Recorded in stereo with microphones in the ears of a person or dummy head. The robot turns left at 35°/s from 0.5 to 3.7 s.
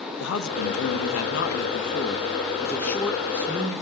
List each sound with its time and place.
0.2 s a man speaking: 100° left, 2.5 m; by 3.8 s 10° right, 2.5 m